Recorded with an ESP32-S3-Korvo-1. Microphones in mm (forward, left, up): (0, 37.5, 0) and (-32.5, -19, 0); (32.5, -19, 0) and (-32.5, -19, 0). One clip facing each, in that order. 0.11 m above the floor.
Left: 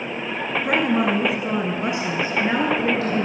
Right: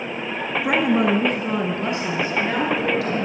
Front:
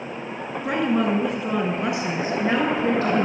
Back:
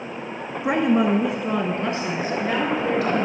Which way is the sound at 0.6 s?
170° left.